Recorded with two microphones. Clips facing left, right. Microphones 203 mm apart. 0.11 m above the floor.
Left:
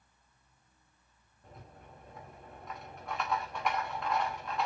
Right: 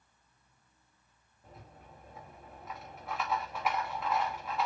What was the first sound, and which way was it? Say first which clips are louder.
A rattle: left 1 dB; 5° right (ahead or behind).